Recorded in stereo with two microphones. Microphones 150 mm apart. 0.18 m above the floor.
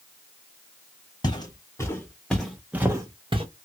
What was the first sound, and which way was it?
Footsteps, 30° left (ahead or behind).